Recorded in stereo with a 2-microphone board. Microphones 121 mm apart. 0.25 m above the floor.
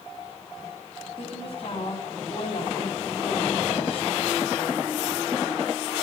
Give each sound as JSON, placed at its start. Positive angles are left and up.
{"t": 1.2, "sound": "a woman speaking", "side_deg": 45, "distance_m": 1.7}